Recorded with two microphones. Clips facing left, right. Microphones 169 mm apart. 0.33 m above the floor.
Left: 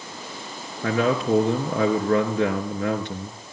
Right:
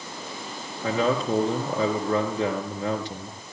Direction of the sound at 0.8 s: 65° left (ahead or behind).